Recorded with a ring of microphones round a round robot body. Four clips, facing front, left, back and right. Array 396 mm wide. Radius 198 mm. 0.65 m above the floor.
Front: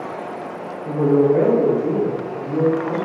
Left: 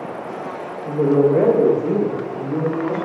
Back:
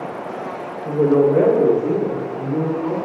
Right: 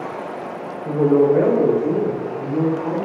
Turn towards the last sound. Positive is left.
turn(degrees=90)